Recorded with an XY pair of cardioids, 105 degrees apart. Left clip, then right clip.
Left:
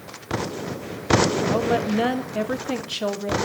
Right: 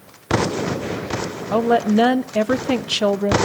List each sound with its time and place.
1.5 s a woman speaking: 50° right, 1.0 m